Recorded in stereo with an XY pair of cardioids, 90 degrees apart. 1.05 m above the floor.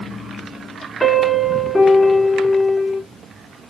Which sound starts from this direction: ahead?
A piano, at 1.0 s.